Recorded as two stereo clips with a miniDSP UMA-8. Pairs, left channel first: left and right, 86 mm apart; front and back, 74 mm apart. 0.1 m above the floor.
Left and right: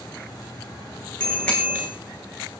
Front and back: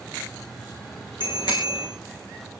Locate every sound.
1.2 s a bicycle bell: 15° left, 6 m